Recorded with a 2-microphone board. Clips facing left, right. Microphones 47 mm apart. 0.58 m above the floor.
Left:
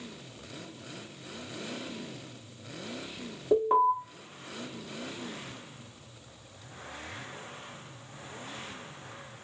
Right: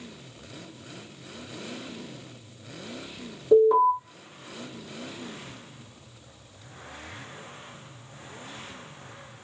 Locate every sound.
3.5 s an alarm: 25° left (ahead or behind), 1.6 m